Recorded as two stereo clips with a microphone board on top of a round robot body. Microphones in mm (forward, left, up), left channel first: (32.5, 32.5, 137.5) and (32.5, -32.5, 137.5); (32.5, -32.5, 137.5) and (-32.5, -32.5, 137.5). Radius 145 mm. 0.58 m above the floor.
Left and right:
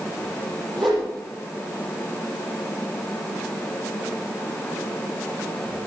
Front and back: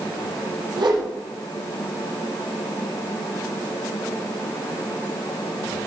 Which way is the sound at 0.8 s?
Straight behind.